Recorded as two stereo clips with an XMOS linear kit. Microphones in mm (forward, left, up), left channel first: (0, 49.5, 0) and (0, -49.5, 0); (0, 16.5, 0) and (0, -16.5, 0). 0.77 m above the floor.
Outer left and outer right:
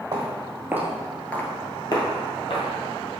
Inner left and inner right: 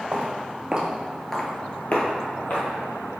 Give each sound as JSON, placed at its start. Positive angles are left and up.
{"t": 0.1, "sound": "footsteps", "side_deg": -35, "distance_m": 1.4}